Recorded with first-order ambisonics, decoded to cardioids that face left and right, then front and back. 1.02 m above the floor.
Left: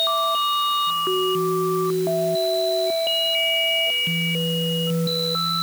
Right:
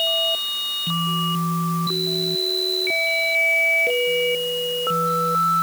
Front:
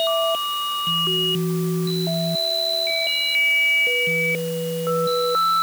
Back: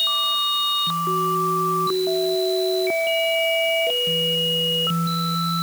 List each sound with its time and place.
Only background noise.